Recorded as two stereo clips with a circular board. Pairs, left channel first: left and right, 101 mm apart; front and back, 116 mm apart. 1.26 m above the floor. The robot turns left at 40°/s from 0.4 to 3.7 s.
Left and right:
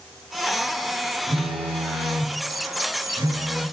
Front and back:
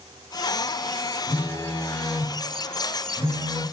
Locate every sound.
1.3 s a phone buzzing: 55° right, 2.5 m; by 3.6 s 150° right, 2.5 m